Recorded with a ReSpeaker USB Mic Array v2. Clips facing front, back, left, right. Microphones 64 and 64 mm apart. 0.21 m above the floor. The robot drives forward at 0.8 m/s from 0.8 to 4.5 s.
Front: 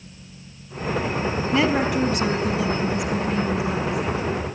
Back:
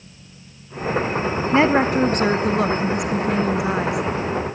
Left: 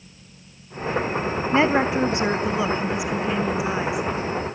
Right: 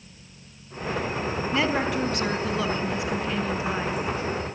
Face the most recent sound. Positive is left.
turn(degrees=170)